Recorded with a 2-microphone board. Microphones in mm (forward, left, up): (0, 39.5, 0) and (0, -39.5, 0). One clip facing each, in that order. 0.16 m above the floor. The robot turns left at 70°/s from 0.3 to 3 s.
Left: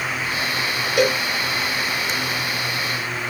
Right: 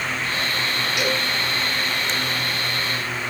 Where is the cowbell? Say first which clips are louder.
Left 7 dB; 45° left (ahead or behind), 2.5 m; by 1.2 s 35° left (ahead or behind), 2.5 m.